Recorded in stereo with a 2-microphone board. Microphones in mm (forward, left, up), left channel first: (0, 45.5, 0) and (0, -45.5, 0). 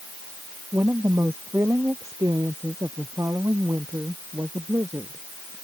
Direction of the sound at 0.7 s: 30° right (ahead or behind).